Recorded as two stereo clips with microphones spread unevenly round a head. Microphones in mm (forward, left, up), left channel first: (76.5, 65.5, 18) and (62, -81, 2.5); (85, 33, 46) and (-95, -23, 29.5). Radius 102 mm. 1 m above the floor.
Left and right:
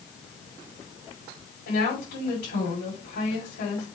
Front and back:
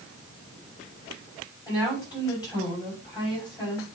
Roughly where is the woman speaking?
Left.